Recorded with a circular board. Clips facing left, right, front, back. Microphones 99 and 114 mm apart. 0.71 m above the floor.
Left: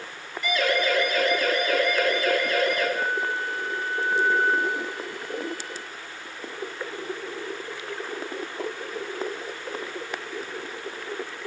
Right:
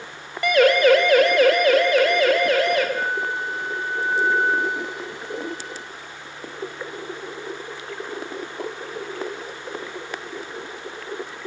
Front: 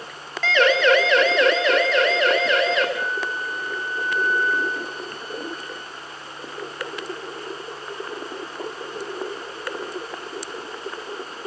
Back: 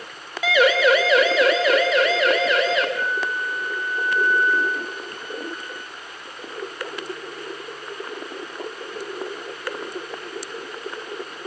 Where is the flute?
135° right, 1.2 m.